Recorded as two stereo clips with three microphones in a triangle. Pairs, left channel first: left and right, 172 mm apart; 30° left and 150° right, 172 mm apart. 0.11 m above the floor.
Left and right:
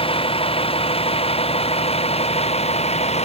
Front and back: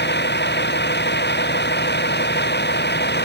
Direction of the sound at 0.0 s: 35° left.